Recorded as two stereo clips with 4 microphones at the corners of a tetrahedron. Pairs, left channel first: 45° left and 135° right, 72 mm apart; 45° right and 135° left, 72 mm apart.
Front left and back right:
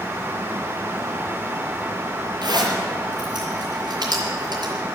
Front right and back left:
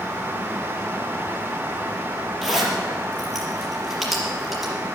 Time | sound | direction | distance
2.4 | a zipper | 135° right | 5 m